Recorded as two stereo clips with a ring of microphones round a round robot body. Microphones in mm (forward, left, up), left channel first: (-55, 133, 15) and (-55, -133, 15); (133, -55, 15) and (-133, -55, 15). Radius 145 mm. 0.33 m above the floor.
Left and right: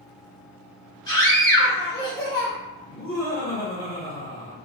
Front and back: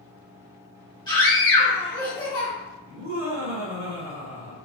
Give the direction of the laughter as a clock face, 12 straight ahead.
7 o'clock.